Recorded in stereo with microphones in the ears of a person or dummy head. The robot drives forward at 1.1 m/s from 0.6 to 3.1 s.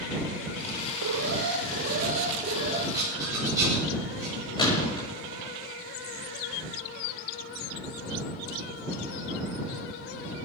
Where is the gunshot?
30° left (ahead or behind), 7 m.